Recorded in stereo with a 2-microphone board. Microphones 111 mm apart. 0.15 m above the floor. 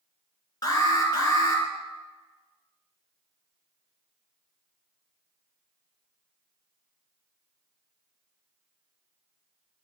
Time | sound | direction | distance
0.6 | an alarm | 35° left (ahead or behind) | 3 m